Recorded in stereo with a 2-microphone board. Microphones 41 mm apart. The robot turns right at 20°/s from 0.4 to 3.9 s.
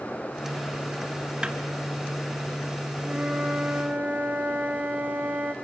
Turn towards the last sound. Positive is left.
turn(degrees=-45)  # may be behind; listen again after turning